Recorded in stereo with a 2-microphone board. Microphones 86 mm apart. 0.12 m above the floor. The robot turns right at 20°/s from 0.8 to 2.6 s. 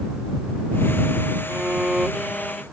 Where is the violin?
20° right (ahead or behind); by 2.6 s centre (ahead or behind).